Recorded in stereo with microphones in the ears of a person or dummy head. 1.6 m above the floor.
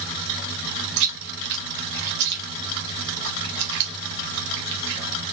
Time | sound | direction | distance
1.0 | chewing | 65° right (ahead or behind) | 1.4 m